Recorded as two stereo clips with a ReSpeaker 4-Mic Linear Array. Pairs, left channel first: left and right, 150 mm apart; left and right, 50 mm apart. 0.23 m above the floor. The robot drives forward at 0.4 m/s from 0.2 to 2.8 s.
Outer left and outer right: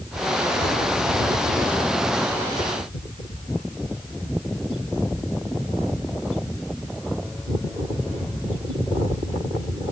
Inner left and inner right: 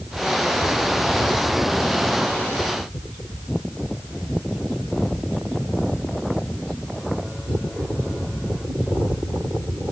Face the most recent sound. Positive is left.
No sound to turn to.